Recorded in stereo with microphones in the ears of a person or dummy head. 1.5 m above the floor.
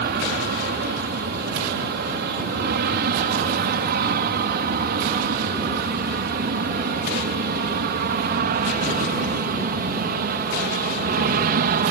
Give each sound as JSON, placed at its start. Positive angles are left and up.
{"t": 0.0, "sound": "an aircraft", "side_deg": -50}